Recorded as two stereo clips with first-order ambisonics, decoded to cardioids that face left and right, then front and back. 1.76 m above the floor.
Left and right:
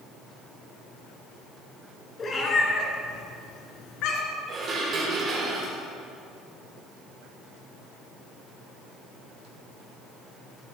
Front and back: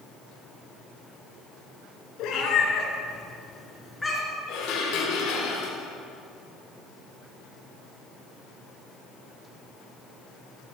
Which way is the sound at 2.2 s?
25° left.